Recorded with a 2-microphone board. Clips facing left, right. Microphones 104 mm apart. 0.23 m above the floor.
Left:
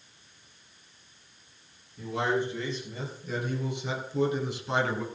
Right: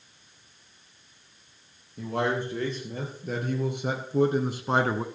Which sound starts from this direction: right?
A man speaking, at 2.0 s.